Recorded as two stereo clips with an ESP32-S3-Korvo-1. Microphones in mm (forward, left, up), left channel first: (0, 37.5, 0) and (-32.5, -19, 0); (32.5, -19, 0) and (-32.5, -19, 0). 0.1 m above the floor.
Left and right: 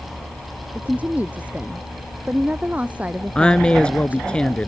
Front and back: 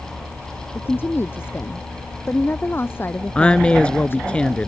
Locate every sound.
0.8 s a woman speaking: 55° right
3.4 s a woman speaking: 25° left